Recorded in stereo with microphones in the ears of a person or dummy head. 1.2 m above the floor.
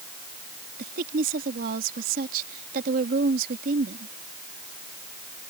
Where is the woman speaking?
50° right (ahead or behind).